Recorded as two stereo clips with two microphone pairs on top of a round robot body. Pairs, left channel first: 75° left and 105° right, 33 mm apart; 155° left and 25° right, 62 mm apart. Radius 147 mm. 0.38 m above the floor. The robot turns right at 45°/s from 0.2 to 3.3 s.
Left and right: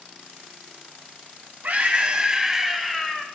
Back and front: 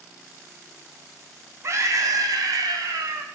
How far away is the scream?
About 4 m.